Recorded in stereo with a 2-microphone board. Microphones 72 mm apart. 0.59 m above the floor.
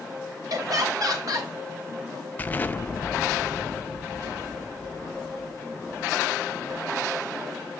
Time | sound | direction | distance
0.5 | laughter | 60° right (ahead or behind) | 2.0 m
2.4 | an explosion | 25° left (ahead or behind) | 0.5 m